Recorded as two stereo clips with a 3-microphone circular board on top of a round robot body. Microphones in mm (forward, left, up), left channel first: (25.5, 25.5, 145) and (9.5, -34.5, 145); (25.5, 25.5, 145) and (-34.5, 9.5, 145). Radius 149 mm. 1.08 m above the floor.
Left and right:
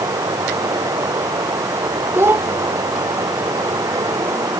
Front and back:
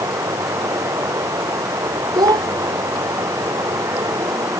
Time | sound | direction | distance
0.0 | running water | 130° right | ?
2.1 | a child speaking | 160° right | ?